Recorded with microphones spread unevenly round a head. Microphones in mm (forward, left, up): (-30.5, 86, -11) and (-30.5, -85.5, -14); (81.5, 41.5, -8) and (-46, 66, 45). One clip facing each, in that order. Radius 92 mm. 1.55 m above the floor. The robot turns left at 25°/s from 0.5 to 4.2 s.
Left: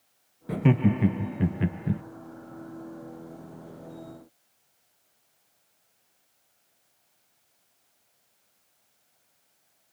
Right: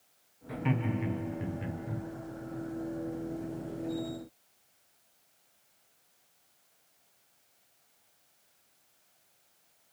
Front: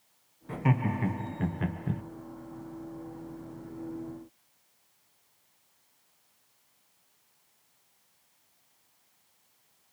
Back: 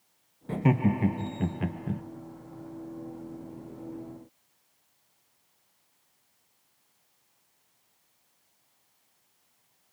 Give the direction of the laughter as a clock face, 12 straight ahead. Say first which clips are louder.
Left 9 dB, back 4 dB; 8 o'clock.